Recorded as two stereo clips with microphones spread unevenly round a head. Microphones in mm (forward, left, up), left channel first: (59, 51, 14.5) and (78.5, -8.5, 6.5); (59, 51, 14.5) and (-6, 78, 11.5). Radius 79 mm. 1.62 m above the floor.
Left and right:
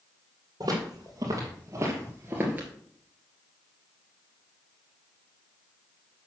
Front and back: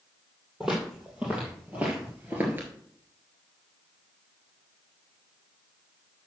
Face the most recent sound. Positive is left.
turn(degrees=-150)